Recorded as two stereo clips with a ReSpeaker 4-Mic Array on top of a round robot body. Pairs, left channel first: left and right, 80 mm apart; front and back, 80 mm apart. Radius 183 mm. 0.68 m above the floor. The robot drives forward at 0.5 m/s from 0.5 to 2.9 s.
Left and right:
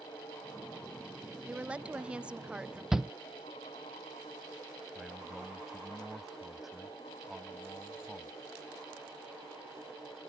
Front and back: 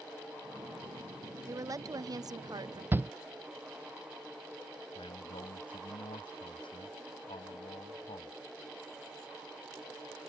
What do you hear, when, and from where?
1.4 s a woman speaking: 160° right; by 2.8 s 170° right
2.9 s a shout: 170° right
5.0 s a man speaking: 5° right